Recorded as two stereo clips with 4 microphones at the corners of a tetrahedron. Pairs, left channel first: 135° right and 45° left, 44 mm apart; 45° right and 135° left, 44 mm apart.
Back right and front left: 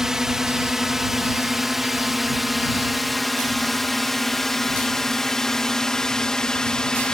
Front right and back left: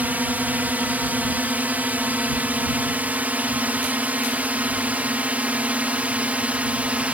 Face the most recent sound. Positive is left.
turn(degrees=165)